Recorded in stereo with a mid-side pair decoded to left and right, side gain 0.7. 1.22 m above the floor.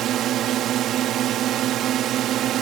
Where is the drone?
50° right.